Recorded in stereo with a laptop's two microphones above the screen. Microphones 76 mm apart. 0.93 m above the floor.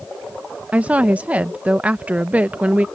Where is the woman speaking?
20° right (ahead or behind).